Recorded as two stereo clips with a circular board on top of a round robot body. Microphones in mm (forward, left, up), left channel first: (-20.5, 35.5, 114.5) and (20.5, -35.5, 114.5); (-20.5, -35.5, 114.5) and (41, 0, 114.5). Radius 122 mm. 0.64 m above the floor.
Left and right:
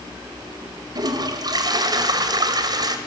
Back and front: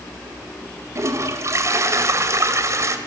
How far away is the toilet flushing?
About 1.9 m.